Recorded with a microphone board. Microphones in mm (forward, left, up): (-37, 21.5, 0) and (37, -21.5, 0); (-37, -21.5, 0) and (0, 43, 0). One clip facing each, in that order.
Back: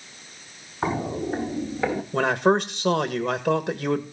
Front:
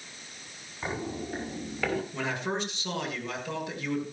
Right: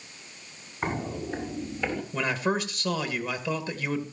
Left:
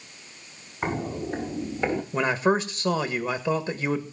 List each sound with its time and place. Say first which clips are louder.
0.8 s footsteps: back 8 dB, left 2 dB; 140° left, 1.9 m; by 2.0 s 85° left, 1.6 m
2.1 s a man speaking: back 11 dB, left 5 dB; 120° left, 1.8 m